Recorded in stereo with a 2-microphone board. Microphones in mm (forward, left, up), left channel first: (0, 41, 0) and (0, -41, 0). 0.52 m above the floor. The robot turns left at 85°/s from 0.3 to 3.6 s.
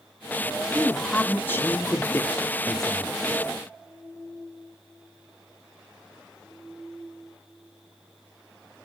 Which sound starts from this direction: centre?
A man speaking, at 0.8 s.